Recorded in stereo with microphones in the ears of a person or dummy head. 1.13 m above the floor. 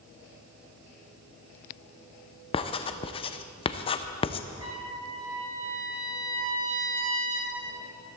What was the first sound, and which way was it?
Writing, 25° left (ahead or behind).